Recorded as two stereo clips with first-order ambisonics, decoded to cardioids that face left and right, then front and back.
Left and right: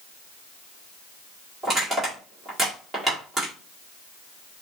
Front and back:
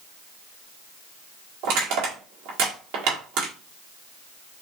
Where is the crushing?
165° right, 1.7 m.